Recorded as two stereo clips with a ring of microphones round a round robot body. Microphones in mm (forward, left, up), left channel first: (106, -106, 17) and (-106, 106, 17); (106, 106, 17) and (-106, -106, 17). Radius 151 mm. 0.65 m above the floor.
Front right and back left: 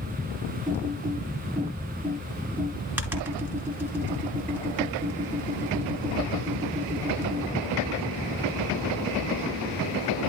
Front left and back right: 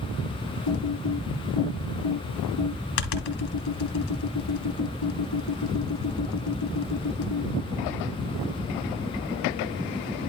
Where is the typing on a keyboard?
50° left, 2.5 m.